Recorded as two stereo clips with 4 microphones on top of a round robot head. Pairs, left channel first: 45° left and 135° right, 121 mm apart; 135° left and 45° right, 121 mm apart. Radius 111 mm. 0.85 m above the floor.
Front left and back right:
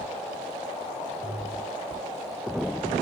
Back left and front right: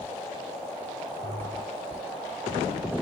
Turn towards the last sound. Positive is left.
turn(degrees=-75)